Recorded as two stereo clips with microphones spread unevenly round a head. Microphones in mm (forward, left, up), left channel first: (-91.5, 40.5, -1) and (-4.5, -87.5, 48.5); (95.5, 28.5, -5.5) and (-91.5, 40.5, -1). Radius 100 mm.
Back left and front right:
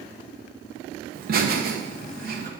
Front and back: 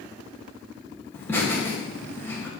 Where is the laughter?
85° right, 2.5 m.